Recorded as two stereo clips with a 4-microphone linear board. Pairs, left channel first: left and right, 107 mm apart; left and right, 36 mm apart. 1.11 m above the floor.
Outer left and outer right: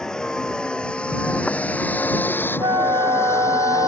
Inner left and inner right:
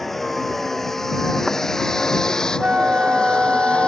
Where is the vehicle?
5° left (ahead or behind); by 3.9 s 30° left (ahead or behind).